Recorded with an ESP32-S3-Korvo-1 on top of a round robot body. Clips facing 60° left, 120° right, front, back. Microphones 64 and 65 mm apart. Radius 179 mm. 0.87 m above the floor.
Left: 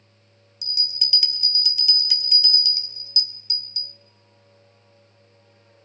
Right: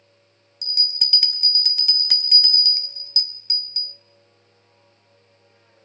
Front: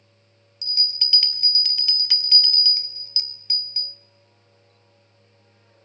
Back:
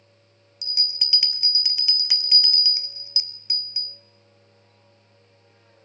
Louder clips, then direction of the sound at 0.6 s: Right 2 dB, front 2 dB; 105° right.